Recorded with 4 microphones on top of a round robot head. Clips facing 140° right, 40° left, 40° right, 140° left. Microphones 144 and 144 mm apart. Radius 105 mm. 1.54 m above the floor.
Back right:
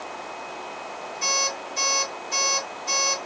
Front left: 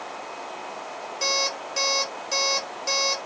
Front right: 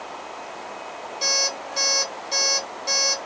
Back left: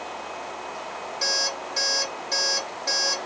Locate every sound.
1.2 s an alarm clock: 40° left, 1.5 m